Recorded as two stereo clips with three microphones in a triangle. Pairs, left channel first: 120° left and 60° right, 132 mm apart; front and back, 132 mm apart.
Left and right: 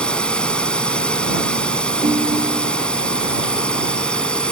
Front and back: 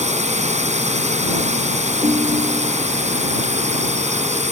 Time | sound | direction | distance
0.0 | a drone | 160° right | ?
2.0 | a ringtone | 115° right | ?